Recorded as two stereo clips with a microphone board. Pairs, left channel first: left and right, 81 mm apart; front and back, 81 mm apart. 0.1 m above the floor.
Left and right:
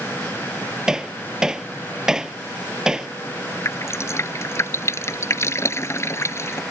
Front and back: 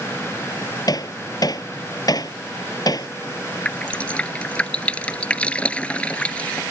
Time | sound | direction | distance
0.9 | hammering | 10° right | ?
3.6 | dripping | 65° left | ?